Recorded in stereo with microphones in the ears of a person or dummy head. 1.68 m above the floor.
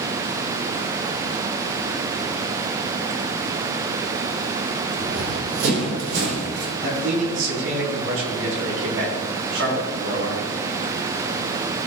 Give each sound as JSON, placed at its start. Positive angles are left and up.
{"t": 5.0, "sound": "running footsteps", "side_deg": -65, "distance_m": 3.5}
{"t": 6.8, "sound": "a man speaking", "side_deg": -80, "distance_m": 4.0}